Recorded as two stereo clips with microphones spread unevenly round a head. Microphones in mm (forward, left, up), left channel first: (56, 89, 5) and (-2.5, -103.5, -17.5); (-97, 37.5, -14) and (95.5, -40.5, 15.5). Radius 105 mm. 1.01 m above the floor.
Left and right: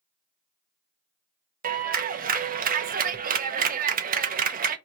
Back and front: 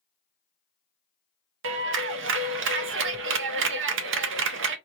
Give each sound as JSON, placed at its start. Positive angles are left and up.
{"t": 1.6, "sound": "a clap", "azimuth_deg": -55, "distance_m": 0.6}